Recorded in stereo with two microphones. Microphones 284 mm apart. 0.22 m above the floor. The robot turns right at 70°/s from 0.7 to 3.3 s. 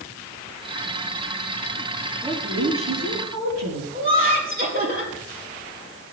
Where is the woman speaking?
170° right, 4.5 m; by 3.8 s 95° right, 4.5 m.